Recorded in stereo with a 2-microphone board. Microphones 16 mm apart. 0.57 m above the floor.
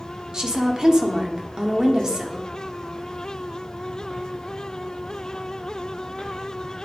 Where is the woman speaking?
35° right (ahead or behind), 1.5 m.